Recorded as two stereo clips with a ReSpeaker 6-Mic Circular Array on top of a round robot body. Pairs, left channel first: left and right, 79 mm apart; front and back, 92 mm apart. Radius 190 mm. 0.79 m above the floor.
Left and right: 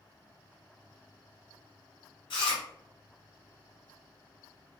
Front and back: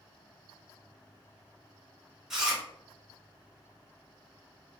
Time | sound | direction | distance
2.3 | chewing | 95° left | 1.0 m